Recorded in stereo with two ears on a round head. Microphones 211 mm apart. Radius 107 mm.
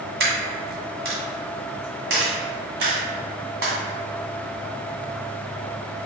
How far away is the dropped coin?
About 2.0 m.